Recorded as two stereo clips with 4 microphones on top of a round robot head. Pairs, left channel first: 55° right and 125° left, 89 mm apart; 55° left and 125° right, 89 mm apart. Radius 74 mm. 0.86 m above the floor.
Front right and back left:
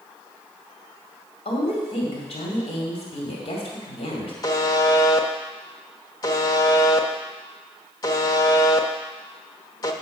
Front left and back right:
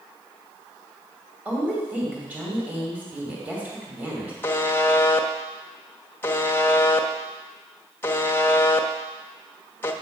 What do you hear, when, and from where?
1.4 s a woman speaking: 50° right, 2 m
4.4 s a buzzer: 10° right, 0.8 m